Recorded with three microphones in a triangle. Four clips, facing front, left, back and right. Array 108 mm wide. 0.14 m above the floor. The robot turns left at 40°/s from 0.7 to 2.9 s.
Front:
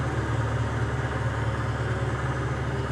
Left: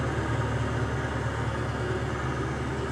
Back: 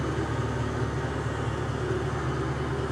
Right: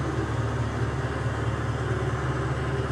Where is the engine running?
30° left, 1.0 m; by 2.9 s 60° right, 1.0 m.